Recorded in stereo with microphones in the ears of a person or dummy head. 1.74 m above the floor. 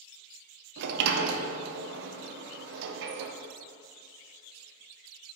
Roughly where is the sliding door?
Right.